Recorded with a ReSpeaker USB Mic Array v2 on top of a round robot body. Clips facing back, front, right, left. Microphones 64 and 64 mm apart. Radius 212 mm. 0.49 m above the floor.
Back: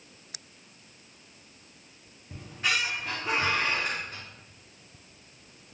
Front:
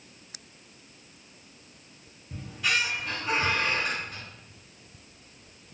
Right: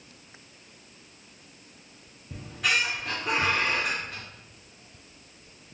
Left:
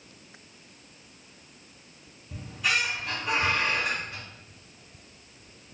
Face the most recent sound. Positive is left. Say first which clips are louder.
# front 1 dB, right 1 dB
turn(degrees=-125)